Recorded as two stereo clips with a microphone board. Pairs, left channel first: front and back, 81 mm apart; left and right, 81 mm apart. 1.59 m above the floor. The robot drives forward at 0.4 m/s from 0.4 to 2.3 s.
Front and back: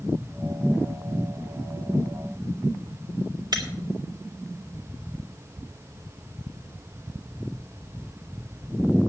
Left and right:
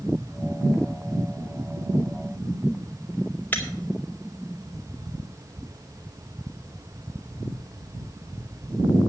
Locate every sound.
3.5 s breaking glass: 155° left, 2.5 m